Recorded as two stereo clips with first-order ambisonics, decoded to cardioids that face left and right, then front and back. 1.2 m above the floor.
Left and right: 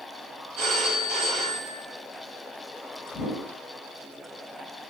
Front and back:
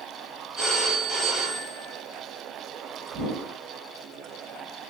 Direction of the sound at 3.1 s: 135° left.